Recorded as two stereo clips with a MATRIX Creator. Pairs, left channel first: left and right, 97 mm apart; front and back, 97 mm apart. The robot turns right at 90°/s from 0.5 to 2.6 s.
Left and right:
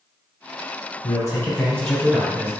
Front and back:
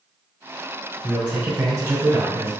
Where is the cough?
I don't hear a cough.